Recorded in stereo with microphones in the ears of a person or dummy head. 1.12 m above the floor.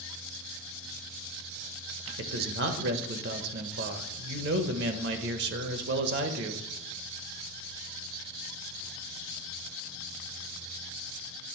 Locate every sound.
2.2 s a man speaking: 65° right (ahead or behind), 1.0 m